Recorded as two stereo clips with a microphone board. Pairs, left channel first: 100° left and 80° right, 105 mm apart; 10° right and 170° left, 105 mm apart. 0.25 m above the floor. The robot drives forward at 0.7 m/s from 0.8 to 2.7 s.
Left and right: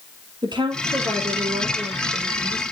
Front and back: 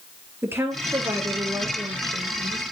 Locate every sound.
0.4 s a woman speaking: 125° right, 6 m; by 2.6 s 130° right, 6.5 m